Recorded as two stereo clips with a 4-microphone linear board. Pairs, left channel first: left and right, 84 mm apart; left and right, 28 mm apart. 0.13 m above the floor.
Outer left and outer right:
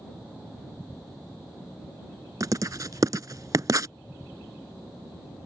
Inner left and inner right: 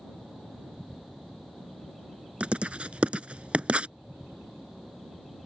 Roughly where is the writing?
Right.